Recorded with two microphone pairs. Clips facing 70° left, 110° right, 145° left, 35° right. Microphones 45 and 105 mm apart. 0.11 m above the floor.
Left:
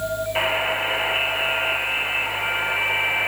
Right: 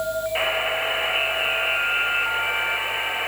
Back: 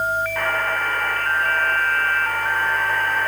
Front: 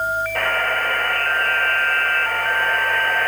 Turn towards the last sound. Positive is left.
turn(degrees=-20)